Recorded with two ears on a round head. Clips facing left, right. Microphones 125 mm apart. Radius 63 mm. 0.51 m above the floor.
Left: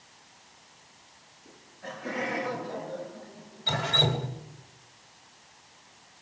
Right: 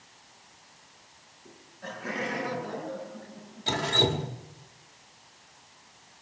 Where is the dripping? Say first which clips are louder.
Right 2 dB; 45° right (ahead or behind), 1.8 m.